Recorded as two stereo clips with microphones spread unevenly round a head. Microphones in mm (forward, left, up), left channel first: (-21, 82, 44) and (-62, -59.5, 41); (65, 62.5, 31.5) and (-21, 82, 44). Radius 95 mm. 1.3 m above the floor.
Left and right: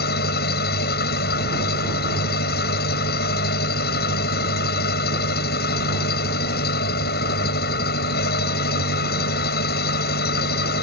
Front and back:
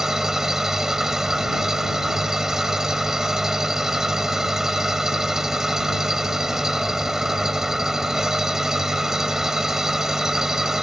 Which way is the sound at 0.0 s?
85° left.